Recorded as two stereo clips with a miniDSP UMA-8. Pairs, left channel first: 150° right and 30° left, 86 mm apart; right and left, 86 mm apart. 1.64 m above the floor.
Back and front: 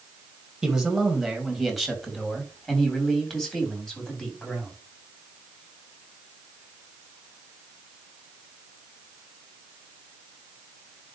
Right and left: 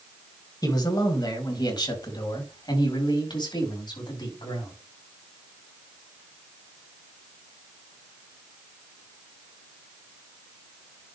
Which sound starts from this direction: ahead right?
A man speaking, at 0.6 s.